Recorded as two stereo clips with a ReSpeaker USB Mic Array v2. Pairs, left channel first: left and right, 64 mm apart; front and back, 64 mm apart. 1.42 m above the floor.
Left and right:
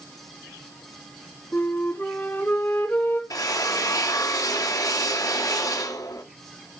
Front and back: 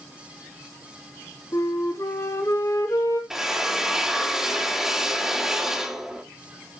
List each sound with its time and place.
1.5 s a flute: 35° left, 3 m
3.3 s a drill: 95° left, 1.8 m